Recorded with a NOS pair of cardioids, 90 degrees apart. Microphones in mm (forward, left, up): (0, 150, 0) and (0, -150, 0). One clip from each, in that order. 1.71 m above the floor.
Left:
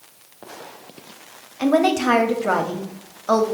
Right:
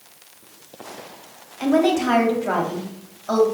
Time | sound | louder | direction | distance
1.6 | a woman speaking | left 1 dB | 30° left | 0.9 m